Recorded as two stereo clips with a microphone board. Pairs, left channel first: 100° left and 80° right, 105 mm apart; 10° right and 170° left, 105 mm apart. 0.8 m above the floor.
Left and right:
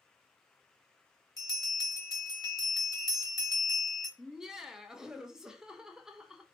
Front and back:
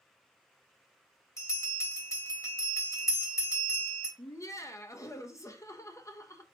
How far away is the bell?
About 1.4 m.